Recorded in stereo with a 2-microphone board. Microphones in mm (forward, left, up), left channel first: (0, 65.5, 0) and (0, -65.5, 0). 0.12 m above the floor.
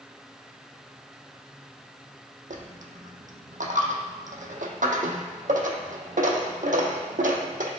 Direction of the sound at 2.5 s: 85° right.